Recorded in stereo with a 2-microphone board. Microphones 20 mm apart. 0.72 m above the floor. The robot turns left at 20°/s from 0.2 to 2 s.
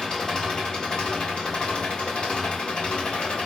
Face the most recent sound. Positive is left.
turn(degrees=105)